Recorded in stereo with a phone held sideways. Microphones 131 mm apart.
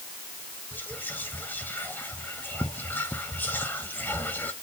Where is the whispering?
15° left (ahead or behind), 0.7 m.